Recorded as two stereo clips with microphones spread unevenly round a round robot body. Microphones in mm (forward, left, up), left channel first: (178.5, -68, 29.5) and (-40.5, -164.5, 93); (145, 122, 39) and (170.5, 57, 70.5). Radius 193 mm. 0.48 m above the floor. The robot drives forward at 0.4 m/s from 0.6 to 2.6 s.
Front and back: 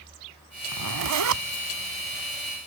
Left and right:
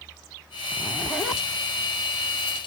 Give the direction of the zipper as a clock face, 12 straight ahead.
5 o'clock.